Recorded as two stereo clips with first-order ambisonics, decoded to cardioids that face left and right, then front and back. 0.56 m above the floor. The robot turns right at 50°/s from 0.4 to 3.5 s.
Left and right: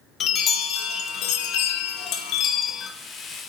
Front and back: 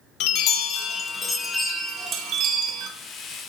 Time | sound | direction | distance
0.2 | a chime | 30° left | 0.5 m